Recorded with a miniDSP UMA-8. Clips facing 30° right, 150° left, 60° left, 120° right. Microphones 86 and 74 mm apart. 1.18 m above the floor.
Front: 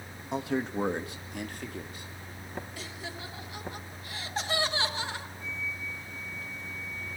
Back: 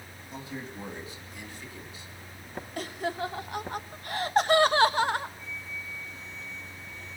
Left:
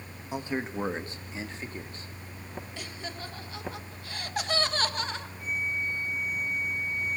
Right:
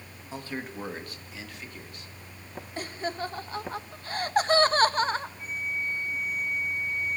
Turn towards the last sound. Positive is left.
turn(degrees=-70)